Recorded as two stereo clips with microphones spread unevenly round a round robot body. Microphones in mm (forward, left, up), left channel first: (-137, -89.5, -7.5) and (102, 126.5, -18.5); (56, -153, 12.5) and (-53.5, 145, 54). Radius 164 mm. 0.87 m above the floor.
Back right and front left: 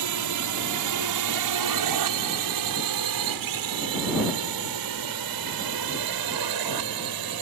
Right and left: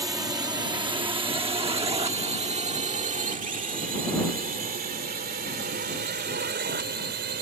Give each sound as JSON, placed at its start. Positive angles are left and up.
{"t": 0.0, "sound": "a drone", "azimuth_deg": 25}